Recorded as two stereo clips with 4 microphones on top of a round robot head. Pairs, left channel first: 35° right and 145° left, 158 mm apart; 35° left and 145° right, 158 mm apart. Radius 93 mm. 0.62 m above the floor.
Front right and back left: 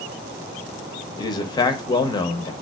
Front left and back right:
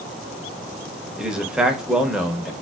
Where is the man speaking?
65° right, 0.7 m.